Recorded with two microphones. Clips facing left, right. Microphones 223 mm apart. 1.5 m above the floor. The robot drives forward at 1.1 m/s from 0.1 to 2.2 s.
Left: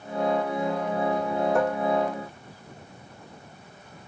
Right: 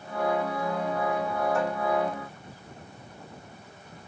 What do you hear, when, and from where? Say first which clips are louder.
1.6 s dishes clattering: left 4 dB; 65° left (ahead or behind); by 1.9 s 70° left (ahead or behind)